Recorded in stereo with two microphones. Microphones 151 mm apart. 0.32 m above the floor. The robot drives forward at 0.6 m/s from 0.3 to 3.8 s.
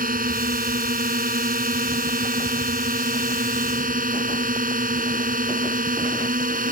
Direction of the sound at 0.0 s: 70° right (ahead or behind).